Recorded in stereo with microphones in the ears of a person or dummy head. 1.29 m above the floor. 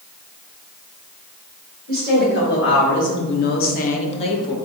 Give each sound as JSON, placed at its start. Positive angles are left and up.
{"t": 1.9, "sound": "a woman speaking", "side_deg": 45, "distance_m": 1.1}